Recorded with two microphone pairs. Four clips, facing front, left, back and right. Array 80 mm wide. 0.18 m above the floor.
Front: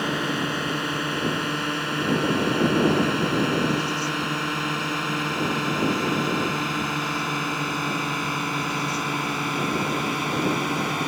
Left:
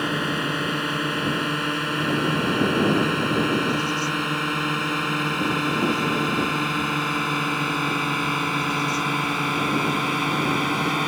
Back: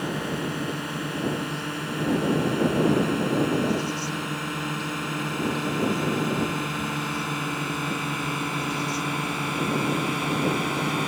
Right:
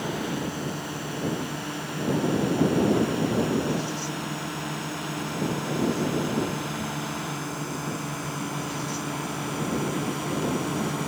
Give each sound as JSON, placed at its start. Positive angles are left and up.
{"t": 0.0, "sound": "a drone", "azimuth_deg": 55}